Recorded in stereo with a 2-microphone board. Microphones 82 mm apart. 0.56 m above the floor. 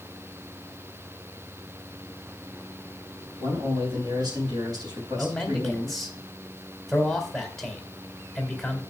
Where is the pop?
I don't hear a pop.